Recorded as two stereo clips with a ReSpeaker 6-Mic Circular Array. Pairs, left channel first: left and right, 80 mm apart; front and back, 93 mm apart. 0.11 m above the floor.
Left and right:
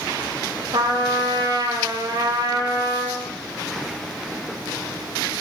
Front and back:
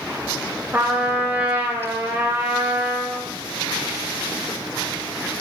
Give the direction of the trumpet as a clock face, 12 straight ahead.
4 o'clock.